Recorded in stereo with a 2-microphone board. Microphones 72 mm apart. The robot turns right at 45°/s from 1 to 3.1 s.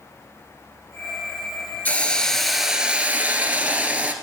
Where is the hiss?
150° left, 1.6 m; by 4.1 s 155° right, 1.6 m.